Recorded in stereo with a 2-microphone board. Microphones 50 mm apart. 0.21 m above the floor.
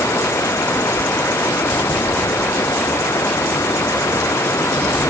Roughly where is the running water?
Left.